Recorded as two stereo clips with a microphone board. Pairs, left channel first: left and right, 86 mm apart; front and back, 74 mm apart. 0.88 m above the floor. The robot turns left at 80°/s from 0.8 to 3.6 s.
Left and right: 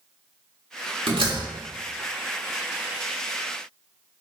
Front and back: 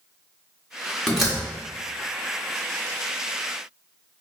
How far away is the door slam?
About 1.2 m.